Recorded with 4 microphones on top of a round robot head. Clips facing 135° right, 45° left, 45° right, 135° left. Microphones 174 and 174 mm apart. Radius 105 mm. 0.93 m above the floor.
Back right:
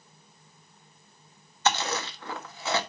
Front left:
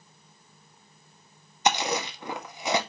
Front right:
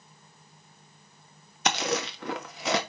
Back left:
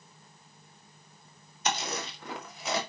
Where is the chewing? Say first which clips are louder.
Front left 2 dB, front right 5 dB; 25° right, 1.6 m.